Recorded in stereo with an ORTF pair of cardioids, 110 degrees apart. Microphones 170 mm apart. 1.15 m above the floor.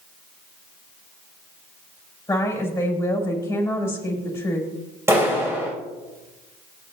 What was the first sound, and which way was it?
A woman speaking, 15° left.